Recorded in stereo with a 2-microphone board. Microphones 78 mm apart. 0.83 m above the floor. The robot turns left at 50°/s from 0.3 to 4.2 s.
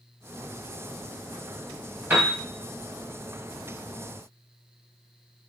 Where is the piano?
25° right (ahead or behind), 1.2 m; by 2.3 s 35° right (ahead or behind), 1.2 m.